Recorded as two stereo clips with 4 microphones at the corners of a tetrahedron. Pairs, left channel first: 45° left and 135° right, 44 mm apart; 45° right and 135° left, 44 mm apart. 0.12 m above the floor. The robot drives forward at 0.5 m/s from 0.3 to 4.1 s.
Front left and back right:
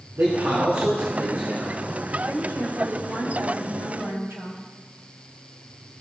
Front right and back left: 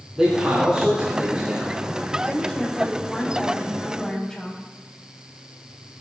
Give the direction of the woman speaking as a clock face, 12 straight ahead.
4 o'clock.